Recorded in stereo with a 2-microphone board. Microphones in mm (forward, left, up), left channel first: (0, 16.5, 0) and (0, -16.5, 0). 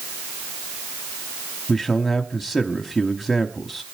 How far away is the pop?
I don't hear a pop.